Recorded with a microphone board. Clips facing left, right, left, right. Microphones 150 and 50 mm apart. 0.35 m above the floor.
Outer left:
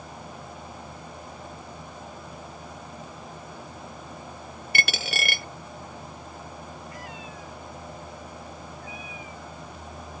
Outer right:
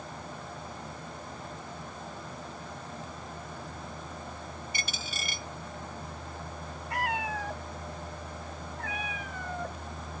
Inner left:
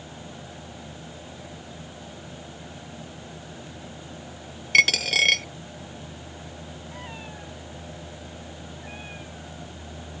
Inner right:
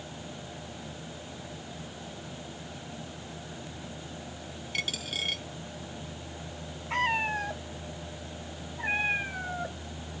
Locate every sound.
4.7 s a dropped coin: 75° left (ahead or behind)
6.9 s a cat meowing: 70° right (ahead or behind)